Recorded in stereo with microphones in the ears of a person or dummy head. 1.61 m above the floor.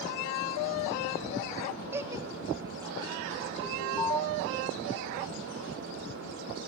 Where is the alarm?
10° left (ahead or behind), 7 m.